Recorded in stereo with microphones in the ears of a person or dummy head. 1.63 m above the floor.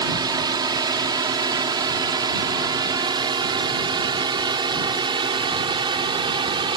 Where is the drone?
20° right (ahead or behind); by 6.8 s 25° right (ahead or behind).